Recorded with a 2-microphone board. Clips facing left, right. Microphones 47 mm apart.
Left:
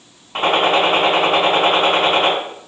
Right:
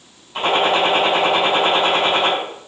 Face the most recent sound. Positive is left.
turn(degrees=50)  # may be behind; listen again after turning